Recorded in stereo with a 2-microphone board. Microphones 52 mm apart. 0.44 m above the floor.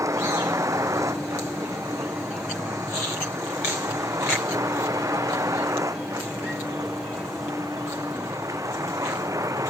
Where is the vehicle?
70° right (ahead or behind); by 9.7 s 85° right.